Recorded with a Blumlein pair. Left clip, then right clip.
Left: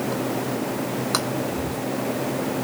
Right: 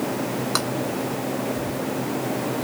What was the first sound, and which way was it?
Whispering, straight ahead.